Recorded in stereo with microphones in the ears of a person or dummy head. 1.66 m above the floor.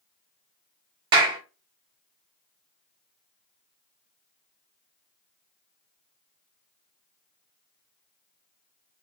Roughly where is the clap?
Right.